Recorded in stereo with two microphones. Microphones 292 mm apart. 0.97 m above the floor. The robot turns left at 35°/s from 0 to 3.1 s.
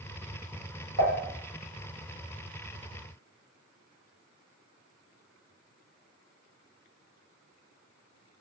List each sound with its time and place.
1.0 s dishes clattering: 85° right, 1.0 m; by 1.2 s 80° right, 1.0 m